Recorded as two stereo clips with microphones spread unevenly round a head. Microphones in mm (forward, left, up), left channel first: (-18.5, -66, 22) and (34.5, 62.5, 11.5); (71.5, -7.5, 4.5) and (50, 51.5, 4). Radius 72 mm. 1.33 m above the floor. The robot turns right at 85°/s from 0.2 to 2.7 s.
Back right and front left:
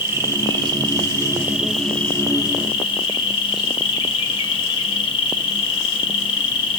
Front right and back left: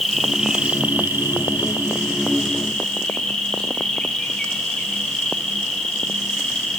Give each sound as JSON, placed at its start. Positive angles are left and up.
{"t": 0.0, "sound": "an insect", "azimuth_deg": 20, "distance_m": 1.4}